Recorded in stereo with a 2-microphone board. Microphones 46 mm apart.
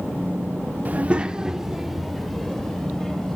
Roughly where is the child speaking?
Right.